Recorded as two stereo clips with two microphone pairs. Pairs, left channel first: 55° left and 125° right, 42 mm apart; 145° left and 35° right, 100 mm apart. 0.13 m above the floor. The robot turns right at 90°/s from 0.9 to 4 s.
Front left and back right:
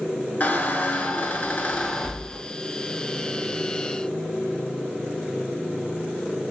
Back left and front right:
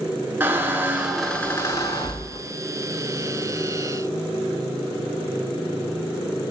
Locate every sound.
0.4 s a squeak: 30° left, 0.6 m; by 2.5 s 170° left, 0.6 m